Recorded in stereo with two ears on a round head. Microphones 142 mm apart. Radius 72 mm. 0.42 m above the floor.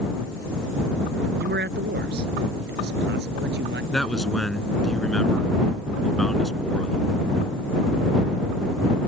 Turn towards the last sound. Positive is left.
turn(degrees=5)  # may be behind; listen again after turning